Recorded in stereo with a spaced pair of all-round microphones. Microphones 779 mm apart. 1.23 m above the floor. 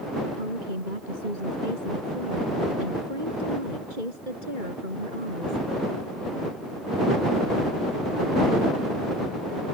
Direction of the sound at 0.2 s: 85° right.